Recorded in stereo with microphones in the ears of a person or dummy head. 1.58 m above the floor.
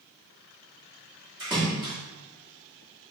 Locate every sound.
1.4 s a splash: 5° right (ahead or behind), 1.1 m